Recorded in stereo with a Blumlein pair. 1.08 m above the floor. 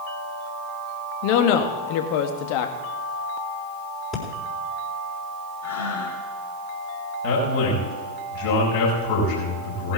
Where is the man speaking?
50° left, 6 m.